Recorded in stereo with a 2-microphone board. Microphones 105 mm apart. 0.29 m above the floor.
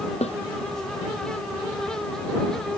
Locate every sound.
0.2 s a snare drum: 85° left